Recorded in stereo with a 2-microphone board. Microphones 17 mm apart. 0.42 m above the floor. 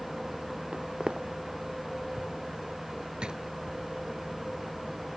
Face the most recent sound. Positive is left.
turn(degrees=-65)  # may be behind; listen again after turning